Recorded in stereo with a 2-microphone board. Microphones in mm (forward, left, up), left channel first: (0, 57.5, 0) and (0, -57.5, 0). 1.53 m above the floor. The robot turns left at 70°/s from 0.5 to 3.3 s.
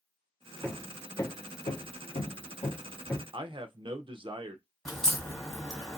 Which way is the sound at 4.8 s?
5° left (ahead or behind).